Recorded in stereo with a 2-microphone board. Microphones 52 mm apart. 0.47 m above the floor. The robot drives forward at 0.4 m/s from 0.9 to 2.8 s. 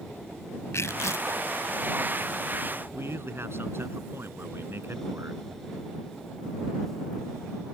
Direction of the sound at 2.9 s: 55° right (ahead or behind).